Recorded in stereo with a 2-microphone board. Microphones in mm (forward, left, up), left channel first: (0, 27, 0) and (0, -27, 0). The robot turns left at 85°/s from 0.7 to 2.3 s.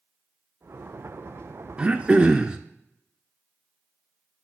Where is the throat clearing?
20° right (ahead or behind), 0.6 m; by 2.6 s 15° right (ahead or behind), 0.6 m.